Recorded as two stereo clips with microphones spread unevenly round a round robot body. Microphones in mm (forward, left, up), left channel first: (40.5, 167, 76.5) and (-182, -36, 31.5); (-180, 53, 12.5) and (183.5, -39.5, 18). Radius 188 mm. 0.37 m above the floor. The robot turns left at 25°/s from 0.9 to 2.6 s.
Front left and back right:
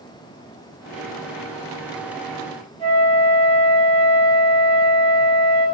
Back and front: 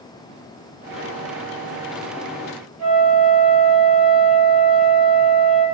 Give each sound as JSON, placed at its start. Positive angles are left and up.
{"t": 2.8, "sound": "a flute", "azimuth_deg": -65, "distance_m": 1.8}